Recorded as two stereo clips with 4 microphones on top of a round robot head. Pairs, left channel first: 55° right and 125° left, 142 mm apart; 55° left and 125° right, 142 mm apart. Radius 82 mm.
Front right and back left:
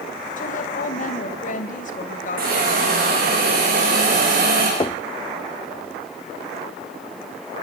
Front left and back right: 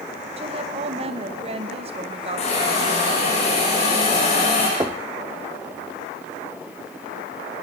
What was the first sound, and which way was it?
A woman speaking, 80° right.